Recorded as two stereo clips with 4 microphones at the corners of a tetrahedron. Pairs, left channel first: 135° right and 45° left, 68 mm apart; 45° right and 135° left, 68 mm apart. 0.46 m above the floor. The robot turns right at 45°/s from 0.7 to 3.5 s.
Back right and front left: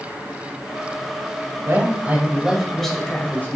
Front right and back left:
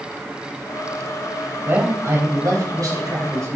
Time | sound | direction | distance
1.6 | a man speaking | 85° left | 3 m